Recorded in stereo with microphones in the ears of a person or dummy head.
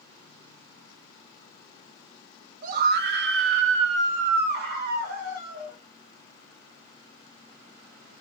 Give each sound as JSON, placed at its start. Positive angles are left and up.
{"t": 2.6, "sound": "a scream", "side_deg": -45, "distance_m": 0.7}